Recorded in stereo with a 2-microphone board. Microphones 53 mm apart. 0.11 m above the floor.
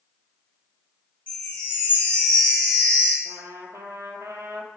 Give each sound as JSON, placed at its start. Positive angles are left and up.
{"t": 1.3, "sound": "a chime", "side_deg": 30, "distance_m": 1.4}
{"t": 3.2, "sound": "a trumpet", "side_deg": -70, "distance_m": 0.6}